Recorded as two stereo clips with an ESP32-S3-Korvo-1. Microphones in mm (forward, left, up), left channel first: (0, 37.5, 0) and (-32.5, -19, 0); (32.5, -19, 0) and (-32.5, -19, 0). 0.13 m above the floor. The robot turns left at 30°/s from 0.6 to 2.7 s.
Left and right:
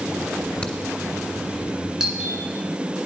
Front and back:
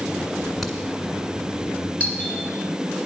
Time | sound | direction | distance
0.6 | a crack | 85° left | 1.3 m
2.0 | a doorbell | 45° right | 1.8 m